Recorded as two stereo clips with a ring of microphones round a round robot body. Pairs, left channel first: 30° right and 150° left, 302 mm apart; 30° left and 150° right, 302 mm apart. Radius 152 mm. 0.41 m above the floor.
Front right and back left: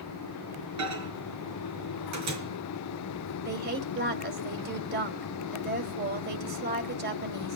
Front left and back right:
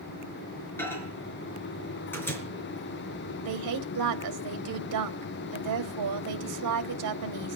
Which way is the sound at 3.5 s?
155° right.